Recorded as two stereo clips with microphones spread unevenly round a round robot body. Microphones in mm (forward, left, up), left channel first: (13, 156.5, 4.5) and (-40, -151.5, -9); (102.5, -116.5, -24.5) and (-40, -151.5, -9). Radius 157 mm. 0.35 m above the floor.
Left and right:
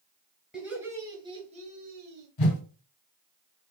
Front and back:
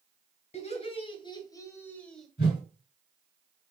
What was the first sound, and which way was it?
Laughter, 15° right.